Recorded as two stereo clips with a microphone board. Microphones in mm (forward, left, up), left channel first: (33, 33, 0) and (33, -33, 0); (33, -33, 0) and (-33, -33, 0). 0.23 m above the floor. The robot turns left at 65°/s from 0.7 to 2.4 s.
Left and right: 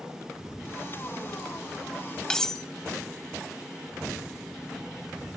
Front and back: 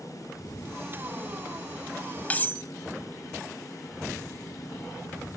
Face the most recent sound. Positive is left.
turn(degrees=15)